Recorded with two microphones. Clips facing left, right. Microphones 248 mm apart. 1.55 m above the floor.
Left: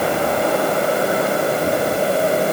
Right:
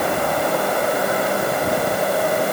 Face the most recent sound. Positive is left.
No sound to turn to.